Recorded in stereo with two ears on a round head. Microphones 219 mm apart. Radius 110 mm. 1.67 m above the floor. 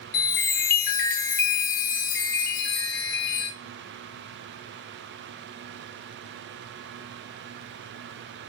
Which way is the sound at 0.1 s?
40° left (ahead or behind).